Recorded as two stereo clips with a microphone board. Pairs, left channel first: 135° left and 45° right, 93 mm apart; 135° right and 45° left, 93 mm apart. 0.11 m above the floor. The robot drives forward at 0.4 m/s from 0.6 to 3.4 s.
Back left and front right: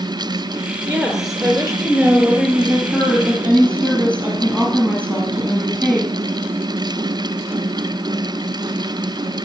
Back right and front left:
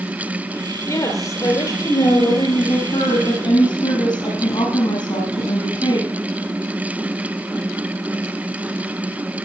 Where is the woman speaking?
115° right, 1.4 m; by 6.1 s 150° right, 1.9 m.